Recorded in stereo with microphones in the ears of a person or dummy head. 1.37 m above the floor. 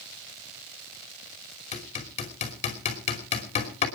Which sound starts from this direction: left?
Hammering, at 1.7 s.